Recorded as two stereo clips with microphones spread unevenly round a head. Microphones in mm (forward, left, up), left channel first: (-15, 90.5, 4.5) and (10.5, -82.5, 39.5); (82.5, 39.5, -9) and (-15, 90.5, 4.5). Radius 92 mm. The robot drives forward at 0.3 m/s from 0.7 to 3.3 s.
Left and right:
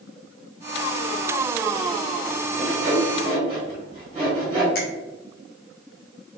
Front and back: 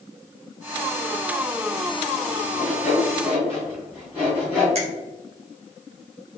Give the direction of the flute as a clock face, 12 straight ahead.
No flute in this recording.